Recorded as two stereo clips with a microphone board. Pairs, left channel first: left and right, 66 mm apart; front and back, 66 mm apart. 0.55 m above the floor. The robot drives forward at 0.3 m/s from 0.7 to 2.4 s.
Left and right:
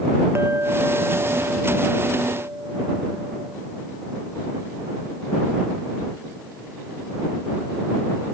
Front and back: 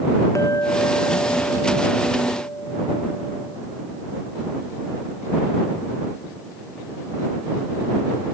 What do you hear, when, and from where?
0.3 s a clink: 40° right